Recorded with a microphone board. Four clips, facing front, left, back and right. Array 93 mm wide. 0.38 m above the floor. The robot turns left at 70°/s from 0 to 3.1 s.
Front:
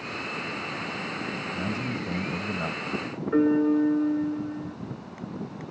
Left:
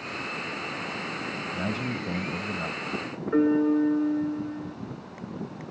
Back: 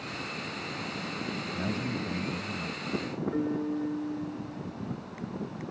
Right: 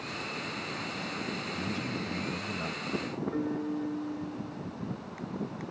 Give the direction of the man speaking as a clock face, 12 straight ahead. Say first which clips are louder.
Left 6 dB, front 1 dB; 9 o'clock.